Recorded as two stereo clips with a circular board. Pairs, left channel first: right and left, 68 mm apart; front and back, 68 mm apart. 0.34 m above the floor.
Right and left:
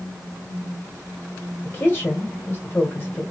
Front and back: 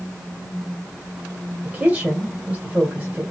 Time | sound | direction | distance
1.6 | a woman speaking | 130° right | 1.7 m